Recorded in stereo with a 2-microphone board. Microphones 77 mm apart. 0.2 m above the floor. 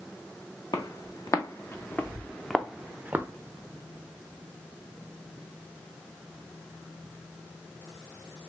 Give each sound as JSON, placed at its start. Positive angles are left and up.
{"t": 0.7, "sound": "footsteps", "side_deg": 55, "distance_m": 1.2}